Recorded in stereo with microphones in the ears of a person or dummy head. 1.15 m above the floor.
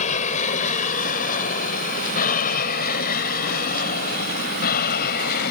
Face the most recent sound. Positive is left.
turn(degrees=55)  # may be behind; listen again after turning